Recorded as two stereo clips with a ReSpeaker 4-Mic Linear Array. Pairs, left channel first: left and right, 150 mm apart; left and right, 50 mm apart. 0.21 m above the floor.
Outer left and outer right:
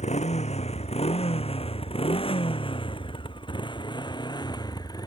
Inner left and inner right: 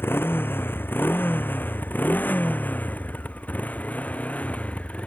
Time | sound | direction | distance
0.0 | a motorcycle | 45° left (ahead or behind) | ?